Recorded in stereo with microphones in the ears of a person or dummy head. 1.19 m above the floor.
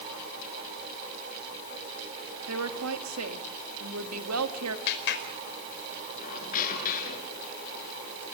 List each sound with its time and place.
2.5 s a woman speaking: 90° right, 2 m
4.9 s a clap: 60° left (ahead or behind), 5 m
6.2 s a squeak: 45° left (ahead or behind), 7 m